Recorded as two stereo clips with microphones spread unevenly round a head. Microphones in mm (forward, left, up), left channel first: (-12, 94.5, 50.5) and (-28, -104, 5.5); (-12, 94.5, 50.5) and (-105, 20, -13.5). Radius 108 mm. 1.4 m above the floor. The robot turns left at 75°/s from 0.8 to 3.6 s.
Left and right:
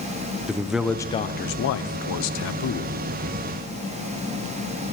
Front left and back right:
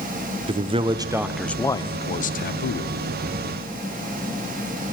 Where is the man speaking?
Straight behind, 0.6 m; by 2.9 s 20° left, 0.6 m.